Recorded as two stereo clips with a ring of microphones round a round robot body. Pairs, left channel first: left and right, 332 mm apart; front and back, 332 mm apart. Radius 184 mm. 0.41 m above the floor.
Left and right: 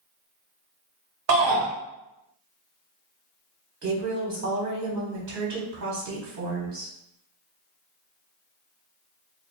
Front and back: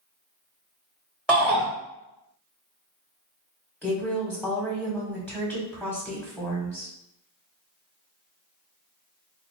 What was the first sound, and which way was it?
A shout, 95° right.